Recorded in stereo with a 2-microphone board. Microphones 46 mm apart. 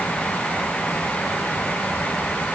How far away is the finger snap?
I don't hear a finger snap.